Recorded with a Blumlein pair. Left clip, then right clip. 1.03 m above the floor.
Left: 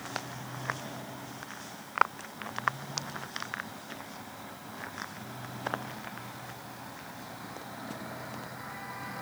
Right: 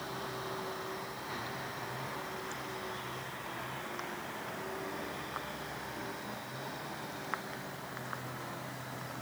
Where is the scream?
No scream in this recording.